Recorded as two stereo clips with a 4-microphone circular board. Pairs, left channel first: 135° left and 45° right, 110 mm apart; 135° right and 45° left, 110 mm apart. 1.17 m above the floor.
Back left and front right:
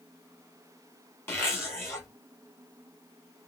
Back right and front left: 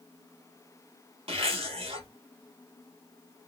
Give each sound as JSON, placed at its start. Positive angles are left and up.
{"t": 1.3, "sound": "a zipper", "azimuth_deg": 70, "distance_m": 1.5}